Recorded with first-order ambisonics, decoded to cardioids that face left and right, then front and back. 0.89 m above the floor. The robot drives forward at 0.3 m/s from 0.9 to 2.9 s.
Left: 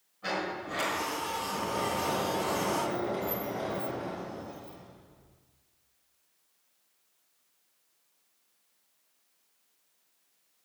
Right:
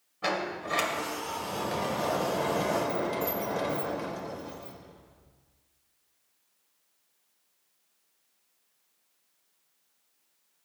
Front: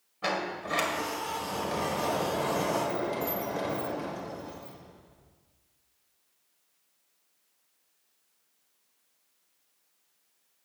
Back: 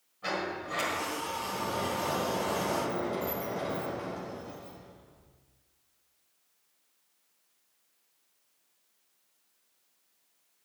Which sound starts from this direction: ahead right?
A sliding door, at 0.2 s.